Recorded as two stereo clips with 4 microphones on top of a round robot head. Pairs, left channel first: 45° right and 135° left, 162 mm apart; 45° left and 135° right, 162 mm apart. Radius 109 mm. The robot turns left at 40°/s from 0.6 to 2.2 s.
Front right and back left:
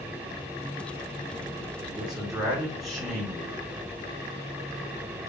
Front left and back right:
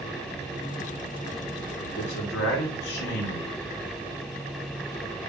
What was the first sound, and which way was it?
A man speaking, 55° left.